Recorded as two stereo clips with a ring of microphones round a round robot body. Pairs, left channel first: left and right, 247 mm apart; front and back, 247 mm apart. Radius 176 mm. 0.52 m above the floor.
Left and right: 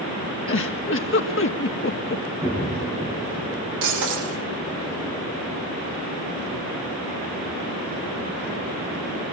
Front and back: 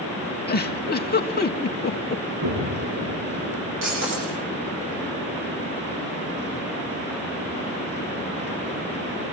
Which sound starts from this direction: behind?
An explosion, at 2.4 s.